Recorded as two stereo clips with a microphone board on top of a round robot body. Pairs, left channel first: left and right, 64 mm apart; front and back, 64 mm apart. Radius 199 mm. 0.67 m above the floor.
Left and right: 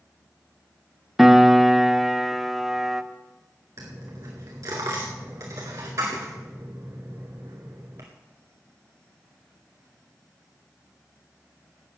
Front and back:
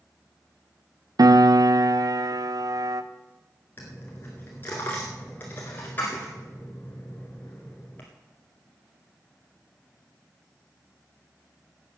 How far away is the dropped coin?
About 0.6 m.